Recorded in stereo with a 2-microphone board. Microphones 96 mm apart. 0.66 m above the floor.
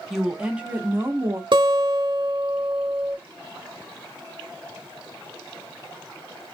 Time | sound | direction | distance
0.1 | a woman speaking | 5° right (ahead or behind) | 1.1 m
1.5 | a guitar | 65° right (ahead or behind) | 0.7 m